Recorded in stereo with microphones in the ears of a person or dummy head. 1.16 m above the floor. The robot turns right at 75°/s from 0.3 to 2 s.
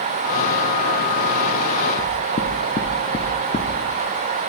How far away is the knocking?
About 0.6 m.